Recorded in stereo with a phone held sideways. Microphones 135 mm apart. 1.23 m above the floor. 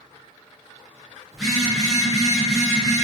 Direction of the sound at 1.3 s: Centre (ahead or behind).